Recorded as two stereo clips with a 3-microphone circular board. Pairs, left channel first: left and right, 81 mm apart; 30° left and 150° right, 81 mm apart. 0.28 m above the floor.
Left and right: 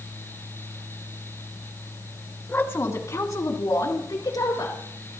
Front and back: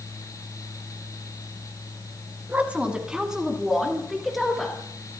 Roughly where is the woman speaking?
Behind left.